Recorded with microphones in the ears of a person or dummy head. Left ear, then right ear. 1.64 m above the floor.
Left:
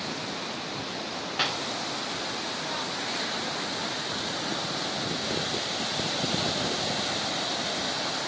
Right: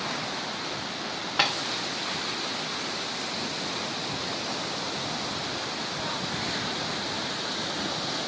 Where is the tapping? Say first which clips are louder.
Right 3 dB; 5° right (ahead or behind), 0.5 m.